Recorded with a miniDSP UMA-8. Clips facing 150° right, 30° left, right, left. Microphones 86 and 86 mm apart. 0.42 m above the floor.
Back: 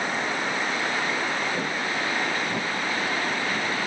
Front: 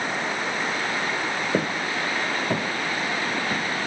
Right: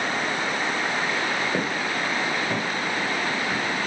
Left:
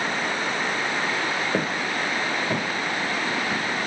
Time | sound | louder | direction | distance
1.5 | footsteps | front 2 dB, even | 15° left | 4 m